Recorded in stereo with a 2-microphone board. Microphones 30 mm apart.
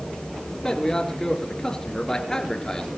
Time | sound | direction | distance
0.6 | a man speaking | 25° left (ahead or behind) | 4.5 m